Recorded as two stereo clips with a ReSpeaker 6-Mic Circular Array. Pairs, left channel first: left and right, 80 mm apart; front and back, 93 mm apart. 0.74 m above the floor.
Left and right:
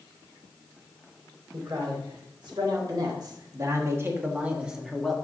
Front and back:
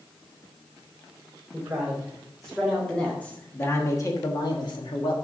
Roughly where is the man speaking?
Right.